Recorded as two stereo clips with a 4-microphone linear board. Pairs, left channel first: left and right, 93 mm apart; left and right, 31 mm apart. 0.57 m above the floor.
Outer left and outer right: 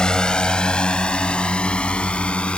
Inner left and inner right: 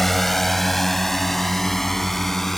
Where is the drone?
10° left (ahead or behind).